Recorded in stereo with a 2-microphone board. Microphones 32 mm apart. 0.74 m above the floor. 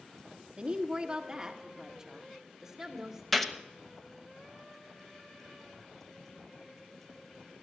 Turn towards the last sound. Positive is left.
turn(degrees=5)  # may be behind; listen again after turning